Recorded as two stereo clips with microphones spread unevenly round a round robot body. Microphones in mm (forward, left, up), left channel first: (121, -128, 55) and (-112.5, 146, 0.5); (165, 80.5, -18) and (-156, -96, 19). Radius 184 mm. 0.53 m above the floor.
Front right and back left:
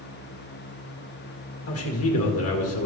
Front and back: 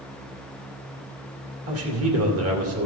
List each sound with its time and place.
1.7 s a man speaking: 100° right, 2.5 m